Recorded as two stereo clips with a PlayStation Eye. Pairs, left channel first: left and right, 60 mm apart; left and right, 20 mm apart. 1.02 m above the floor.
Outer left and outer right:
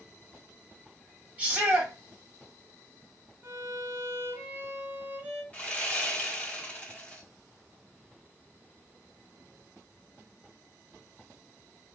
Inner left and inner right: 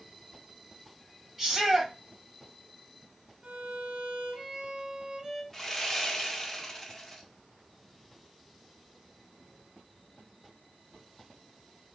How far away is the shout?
About 1.8 m.